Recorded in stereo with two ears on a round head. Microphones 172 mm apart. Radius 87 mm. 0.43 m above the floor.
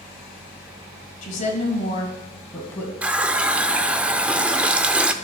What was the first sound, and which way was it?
A woman speaking, 40° left (ahead or behind).